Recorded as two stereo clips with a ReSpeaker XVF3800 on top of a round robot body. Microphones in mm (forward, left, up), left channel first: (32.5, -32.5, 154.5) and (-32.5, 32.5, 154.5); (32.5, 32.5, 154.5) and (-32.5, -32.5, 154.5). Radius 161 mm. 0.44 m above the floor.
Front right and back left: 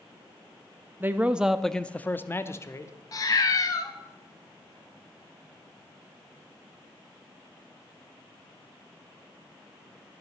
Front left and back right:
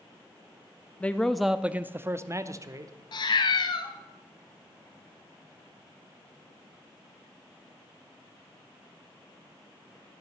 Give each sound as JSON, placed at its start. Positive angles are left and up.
{"t": 1.0, "sound": "a man speaking", "azimuth_deg": 100, "distance_m": 0.9}
{"t": 3.1, "sound": "a cat meowing", "azimuth_deg": 5, "distance_m": 0.9}